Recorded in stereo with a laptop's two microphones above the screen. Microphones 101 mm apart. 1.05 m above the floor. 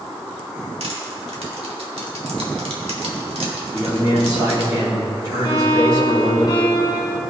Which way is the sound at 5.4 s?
45° left (ahead or behind).